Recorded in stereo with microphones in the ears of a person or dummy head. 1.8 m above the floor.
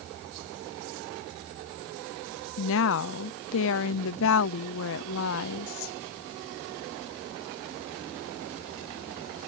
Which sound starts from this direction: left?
A woman speaking, at 2.6 s.